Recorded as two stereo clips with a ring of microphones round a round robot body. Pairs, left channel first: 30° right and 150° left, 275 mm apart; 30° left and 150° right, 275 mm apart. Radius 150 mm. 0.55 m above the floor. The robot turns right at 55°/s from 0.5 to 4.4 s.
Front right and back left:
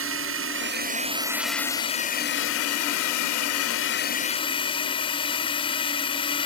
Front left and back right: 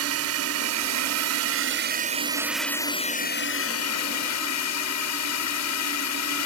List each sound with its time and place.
0.0 s a drone: 175° right; by 6.5 s 40° left